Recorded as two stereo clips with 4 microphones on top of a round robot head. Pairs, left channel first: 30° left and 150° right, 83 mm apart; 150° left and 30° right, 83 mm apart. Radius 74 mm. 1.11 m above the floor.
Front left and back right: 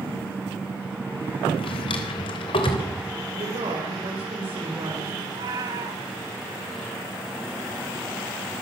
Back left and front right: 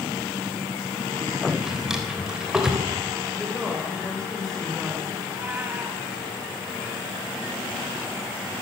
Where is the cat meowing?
105° right, 2.5 m.